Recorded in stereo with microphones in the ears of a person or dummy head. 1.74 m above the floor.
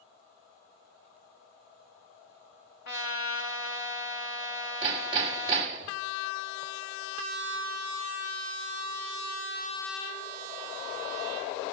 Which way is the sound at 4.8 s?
25° right (ahead or behind).